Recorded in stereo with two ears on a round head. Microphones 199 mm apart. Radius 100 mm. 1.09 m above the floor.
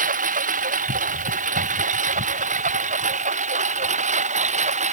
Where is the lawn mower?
40° right (ahead or behind); by 4.9 s 35° right (ahead or behind).